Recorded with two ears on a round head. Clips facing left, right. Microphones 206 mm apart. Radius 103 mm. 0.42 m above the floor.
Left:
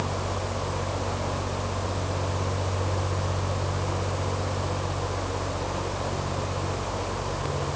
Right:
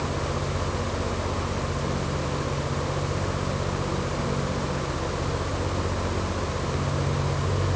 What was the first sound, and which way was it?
Only background noise.